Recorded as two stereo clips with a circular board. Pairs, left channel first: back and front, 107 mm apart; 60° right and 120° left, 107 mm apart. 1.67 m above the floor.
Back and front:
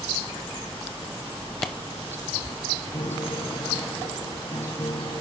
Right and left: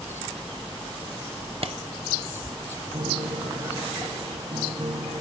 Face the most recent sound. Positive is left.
turn(degrees=145)